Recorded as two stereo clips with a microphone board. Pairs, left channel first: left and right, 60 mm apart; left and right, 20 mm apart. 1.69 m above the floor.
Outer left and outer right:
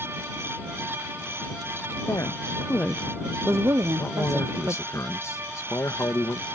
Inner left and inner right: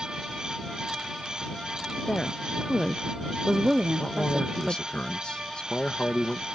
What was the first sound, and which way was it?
A woman speaking, 65° left (ahead or behind).